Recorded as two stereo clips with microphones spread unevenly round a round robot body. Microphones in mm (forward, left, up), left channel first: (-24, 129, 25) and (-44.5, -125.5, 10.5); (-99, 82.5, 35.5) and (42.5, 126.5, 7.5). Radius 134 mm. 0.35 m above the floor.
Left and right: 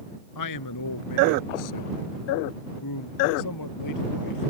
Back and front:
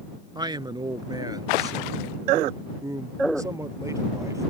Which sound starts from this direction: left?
A man speaking, at 0.3 s.